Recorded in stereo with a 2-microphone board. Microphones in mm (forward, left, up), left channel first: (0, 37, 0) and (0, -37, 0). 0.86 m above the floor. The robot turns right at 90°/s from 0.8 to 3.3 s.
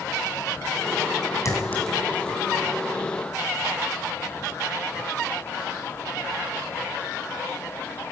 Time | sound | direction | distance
1.4 | a clink | 45° left (ahead or behind) | 4.5 m